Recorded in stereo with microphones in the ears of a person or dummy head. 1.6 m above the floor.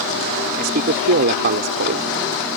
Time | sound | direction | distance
0.6 | a man speaking | 50° right (ahead or behind) | ?